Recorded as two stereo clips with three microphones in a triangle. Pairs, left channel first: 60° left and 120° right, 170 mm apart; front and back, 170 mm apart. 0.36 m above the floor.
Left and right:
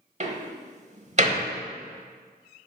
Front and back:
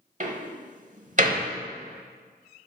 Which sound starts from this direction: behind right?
A door slam, at 0.2 s.